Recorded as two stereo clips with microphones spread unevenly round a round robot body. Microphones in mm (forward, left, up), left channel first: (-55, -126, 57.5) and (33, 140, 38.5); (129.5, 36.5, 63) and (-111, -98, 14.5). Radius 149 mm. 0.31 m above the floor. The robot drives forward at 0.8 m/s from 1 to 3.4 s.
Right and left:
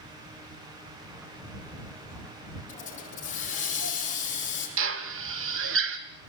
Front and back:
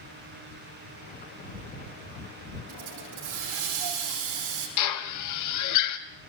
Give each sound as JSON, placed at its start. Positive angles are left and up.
{"t": 2.7, "sound": "a hiss", "azimuth_deg": -175, "distance_m": 6.5}
{"t": 4.8, "sound": "a drill", "azimuth_deg": 40, "distance_m": 2.0}